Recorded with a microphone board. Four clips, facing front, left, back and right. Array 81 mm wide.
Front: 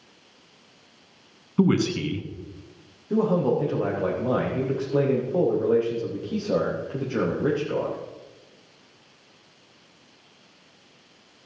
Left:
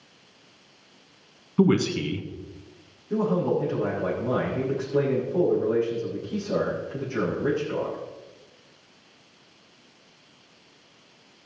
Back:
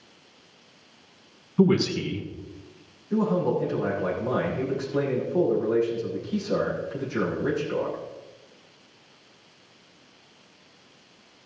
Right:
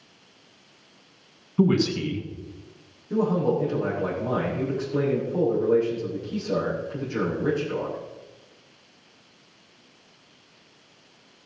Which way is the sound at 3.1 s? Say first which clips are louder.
Right 1 dB, front 2 dB; 5° right.